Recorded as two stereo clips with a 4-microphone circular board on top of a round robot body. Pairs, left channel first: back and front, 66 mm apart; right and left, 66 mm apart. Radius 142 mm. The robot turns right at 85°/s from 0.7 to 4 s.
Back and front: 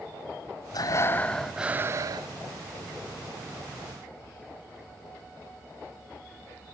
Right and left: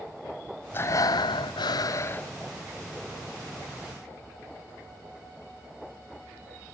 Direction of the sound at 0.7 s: 150° right.